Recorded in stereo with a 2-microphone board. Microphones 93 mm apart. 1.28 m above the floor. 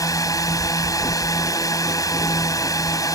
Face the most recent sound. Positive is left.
turn(degrees=40)  # may be behind; listen again after turning